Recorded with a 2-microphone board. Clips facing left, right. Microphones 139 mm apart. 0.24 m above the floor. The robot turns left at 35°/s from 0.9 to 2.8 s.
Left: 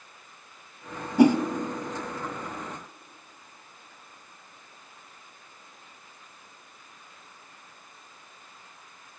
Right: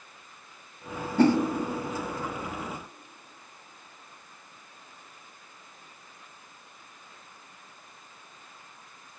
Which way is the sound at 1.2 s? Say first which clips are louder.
Left 3 dB; 15° left (ahead or behind).